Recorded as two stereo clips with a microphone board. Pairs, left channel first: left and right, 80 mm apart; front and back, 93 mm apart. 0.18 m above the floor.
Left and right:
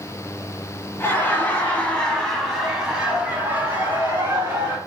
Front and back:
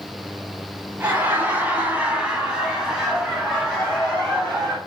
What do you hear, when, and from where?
1.0 s laughter: 130° left, 1.4 m; by 4.8 s 70° right, 1.5 m